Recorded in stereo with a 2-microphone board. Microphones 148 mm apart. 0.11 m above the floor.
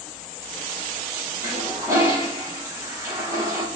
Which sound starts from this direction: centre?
A toilet flushing, at 1.4 s.